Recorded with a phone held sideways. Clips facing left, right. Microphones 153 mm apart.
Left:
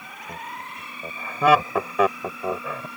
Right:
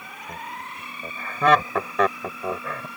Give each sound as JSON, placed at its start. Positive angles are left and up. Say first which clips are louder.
{"t": 0.3, "sound": "laughter", "louder": "even", "side_deg": 10}